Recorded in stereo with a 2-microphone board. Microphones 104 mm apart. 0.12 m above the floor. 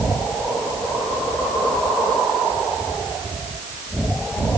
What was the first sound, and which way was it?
Only background noise.